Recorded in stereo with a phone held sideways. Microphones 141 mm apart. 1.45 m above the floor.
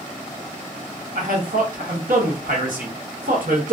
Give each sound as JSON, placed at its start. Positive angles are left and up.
{"t": 1.1, "sound": "a man speaking", "side_deg": -75, "distance_m": 0.9}